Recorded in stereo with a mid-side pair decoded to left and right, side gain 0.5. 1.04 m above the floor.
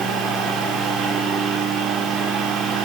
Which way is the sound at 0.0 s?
70° right.